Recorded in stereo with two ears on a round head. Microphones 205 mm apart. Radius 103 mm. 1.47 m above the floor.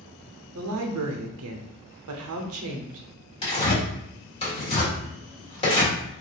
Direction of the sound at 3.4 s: 25° left (ahead or behind).